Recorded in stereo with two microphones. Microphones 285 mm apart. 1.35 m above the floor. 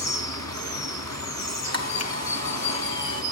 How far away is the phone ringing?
No phone ringing in this recording.